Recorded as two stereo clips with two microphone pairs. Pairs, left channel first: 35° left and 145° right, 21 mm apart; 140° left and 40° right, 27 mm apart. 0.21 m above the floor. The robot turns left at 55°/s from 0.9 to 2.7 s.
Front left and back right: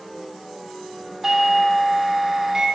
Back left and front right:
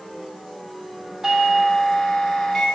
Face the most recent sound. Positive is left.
turn(degrees=-160)